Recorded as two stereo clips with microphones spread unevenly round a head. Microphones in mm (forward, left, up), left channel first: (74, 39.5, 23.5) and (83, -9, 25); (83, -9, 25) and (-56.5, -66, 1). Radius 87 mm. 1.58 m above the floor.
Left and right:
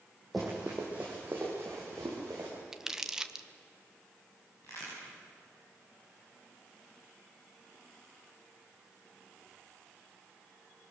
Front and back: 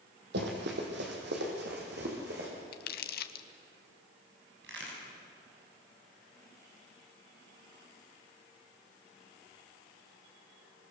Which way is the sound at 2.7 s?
Straight ahead.